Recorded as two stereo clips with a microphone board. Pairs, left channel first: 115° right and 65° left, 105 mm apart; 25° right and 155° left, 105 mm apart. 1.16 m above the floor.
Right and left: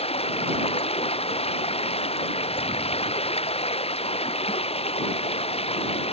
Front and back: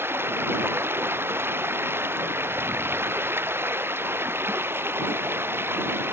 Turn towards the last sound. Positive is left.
turn(degrees=-135)